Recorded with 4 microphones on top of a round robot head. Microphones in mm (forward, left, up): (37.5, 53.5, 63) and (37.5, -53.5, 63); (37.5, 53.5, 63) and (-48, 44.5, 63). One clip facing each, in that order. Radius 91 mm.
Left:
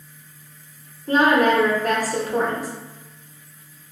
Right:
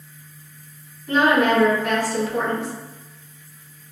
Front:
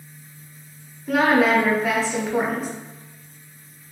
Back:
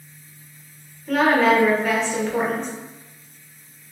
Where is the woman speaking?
90° left, 0.8 m.